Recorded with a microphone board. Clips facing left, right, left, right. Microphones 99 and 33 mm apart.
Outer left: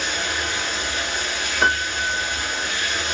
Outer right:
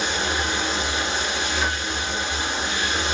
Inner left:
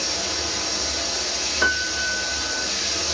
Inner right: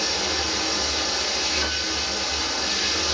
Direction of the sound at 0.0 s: 25° right (ahead or behind).